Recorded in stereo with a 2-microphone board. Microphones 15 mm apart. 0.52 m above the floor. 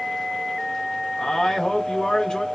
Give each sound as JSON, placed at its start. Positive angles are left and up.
{"t": 1.2, "sound": "a man speaking", "side_deg": 45, "distance_m": 1.0}